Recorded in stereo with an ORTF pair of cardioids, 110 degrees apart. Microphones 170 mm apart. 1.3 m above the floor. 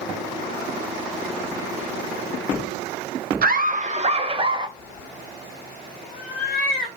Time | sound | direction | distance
3.4 | laughter | 60° right | 0.6 m
4.8 | a cat meowing | 60° left | 2.0 m